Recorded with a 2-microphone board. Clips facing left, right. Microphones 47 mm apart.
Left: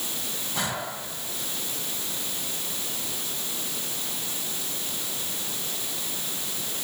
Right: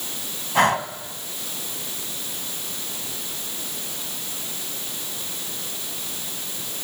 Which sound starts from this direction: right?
Breathing, at 0.6 s.